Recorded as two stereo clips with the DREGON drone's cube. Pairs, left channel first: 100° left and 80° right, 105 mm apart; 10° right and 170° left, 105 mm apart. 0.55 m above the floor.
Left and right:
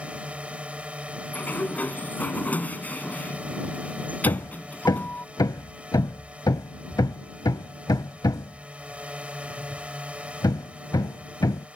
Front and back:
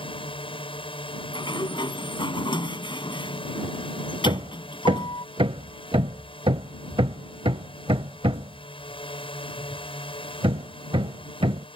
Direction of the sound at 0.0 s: Straight ahead.